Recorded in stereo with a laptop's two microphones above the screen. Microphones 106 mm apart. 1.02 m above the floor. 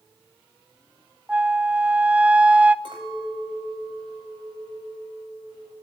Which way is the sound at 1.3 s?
10° right (ahead or behind).